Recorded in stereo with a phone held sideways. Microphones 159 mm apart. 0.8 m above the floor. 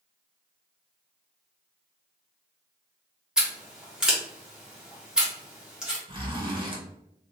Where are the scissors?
5° right (ahead or behind), 0.9 m.